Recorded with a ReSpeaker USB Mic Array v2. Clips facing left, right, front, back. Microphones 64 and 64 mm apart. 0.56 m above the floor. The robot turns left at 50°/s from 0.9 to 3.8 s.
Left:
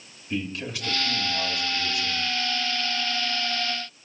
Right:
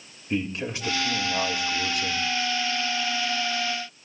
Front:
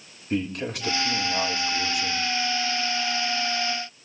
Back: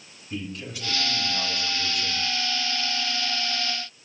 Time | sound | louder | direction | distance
0.3 | a man speaking | right 2 dB, front 7 dB | 25° right | 1.8 m